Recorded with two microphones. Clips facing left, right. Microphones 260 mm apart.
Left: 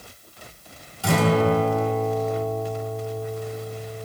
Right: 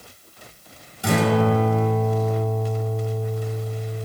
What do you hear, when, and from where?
1.0 s a guitar: 20° right (ahead or behind), 2 m